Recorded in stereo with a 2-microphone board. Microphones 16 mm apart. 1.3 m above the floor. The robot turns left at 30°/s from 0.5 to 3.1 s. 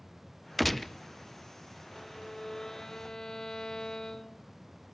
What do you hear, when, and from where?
0.6 s a gunshot: 5° left (ahead or behind), 0.6 m; by 0.9 s 15° left (ahead or behind), 0.6 m
1.9 s a violin: 170° left, 1.5 m; by 4.5 s 135° left, 1.5 m